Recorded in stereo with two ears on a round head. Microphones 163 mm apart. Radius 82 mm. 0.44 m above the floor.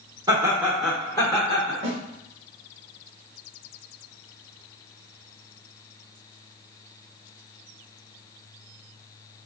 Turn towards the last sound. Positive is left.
turn(degrees=-75)  # may be behind; listen again after turning